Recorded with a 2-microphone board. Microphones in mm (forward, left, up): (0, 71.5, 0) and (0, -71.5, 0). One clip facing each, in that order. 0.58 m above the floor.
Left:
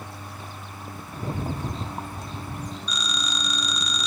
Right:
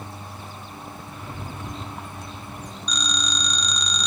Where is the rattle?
35° left (ahead or behind), 0.7 m.